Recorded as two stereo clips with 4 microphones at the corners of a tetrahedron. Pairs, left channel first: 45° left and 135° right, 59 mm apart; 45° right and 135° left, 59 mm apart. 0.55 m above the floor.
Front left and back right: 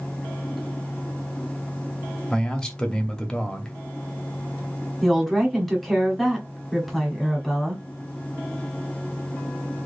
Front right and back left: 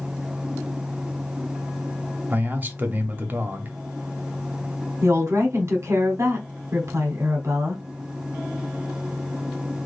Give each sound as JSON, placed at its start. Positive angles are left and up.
{"t": 2.3, "sound": "a man speaking", "azimuth_deg": 115, "distance_m": 0.8}
{"t": 5.0, "sound": "a woman speaking", "azimuth_deg": 135, "distance_m": 1.0}